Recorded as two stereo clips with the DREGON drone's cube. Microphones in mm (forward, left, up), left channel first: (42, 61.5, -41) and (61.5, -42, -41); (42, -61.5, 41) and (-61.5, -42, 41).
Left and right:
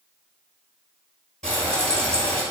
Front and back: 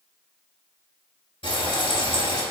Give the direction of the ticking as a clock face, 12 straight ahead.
I don't hear ticking.